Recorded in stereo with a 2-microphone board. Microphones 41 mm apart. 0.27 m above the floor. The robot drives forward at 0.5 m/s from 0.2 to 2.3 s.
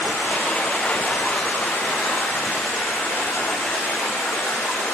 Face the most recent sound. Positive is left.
turn(degrees=75)  # may be behind; listen again after turning